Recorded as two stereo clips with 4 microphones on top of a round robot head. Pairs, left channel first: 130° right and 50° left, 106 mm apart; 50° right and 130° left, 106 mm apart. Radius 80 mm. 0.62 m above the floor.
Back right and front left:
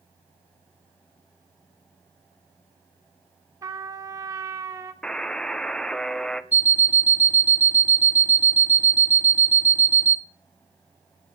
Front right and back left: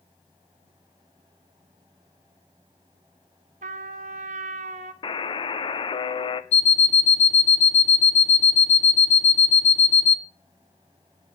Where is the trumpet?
115° left, 1.1 m.